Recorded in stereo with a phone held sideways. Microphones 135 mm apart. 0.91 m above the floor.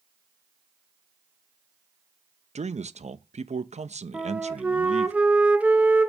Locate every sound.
2.5 s a man speaking: 60° right (ahead or behind), 0.5 m
4.1 s a flute: 10° right (ahead or behind), 0.7 m